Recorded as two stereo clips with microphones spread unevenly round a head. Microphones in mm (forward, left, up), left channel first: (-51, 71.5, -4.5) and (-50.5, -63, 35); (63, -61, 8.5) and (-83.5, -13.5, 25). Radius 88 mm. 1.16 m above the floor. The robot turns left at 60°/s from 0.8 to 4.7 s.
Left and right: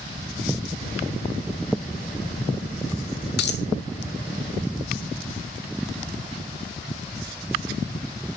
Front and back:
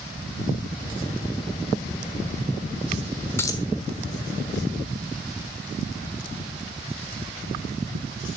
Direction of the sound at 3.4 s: 60° left.